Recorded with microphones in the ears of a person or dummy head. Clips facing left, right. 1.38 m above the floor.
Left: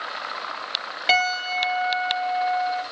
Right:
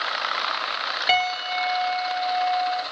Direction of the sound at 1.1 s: 5° right (ahead or behind).